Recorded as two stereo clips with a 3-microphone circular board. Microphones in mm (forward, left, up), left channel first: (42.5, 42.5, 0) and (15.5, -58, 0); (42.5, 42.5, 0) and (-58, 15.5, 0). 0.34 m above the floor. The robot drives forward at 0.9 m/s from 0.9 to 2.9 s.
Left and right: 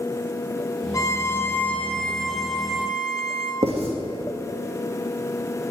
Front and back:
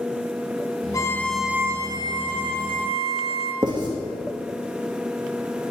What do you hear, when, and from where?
0.9 s a violin: 40° left, 0.7 m; by 3.5 s 170° left, 1.6 m
3.6 s writing: 120° right, 2.5 m